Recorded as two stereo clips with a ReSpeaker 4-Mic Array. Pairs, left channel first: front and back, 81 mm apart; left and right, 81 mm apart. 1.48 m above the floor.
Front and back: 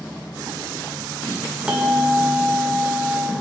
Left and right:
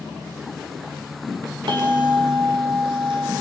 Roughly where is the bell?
Right.